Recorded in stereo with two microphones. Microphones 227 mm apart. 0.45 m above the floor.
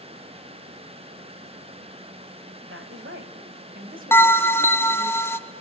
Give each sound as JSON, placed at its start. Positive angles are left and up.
{"t": 2.7, "sound": "a woman speaking", "side_deg": -60, "distance_m": 2.0}
{"t": 4.1, "sound": "a bell", "side_deg": 10, "distance_m": 0.6}